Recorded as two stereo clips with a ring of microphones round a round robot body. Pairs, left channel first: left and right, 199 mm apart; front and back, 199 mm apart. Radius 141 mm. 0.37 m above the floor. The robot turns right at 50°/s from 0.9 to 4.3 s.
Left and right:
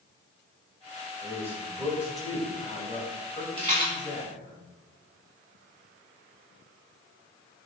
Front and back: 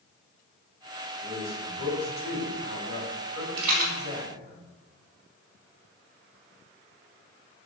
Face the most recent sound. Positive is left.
turn(degrees=-125)